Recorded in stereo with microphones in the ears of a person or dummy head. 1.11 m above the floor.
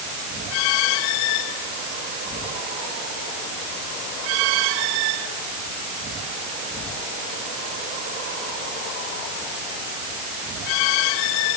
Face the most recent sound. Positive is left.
No sound to turn to.